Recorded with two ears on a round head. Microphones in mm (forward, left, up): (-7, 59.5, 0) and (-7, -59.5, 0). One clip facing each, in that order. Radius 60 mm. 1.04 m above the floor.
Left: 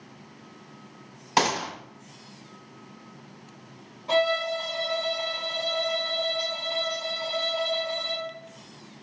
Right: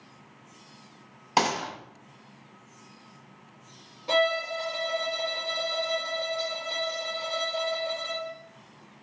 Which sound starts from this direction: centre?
A gunshot, at 1.4 s.